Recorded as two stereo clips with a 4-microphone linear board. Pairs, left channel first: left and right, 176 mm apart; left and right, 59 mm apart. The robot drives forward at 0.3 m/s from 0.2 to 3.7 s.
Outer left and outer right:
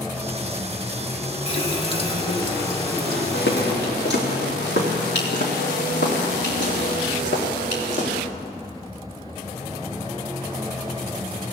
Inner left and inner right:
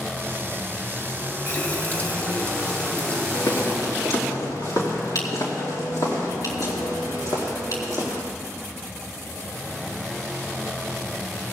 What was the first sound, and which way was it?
A running tap, 35° left (ahead or behind).